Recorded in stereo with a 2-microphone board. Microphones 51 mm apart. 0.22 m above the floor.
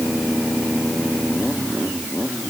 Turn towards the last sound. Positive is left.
No sound to turn to.